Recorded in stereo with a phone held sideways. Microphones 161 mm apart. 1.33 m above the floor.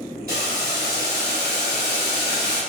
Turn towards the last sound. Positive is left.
turn(degrees=-75)  # may be behind; listen again after turning